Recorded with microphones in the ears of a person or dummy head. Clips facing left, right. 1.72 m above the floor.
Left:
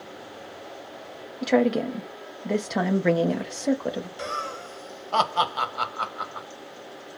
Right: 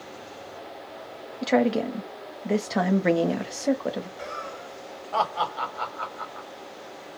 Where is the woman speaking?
5° left (ahead or behind), 0.5 m.